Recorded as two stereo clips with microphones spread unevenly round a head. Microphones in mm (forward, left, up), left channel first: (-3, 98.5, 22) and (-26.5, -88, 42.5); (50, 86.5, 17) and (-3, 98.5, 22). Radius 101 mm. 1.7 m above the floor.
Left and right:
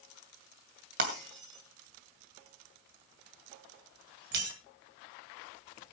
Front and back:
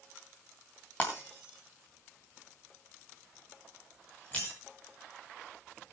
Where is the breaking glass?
90° right, 2.5 m.